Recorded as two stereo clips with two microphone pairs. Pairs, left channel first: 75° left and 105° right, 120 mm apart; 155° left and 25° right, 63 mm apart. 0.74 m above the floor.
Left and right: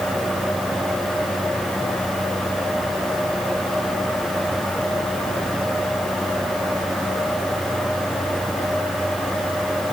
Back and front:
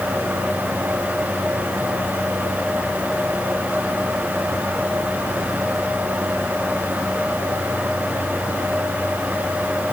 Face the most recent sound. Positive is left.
No sound to turn to.